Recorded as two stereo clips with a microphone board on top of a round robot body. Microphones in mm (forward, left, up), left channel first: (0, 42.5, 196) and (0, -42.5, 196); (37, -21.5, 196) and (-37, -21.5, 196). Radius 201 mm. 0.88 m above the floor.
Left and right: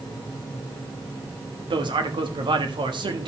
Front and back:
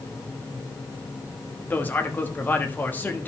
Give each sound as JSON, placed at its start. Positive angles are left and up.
{"t": 1.7, "sound": "a man speaking", "azimuth_deg": -65, "distance_m": 1.5}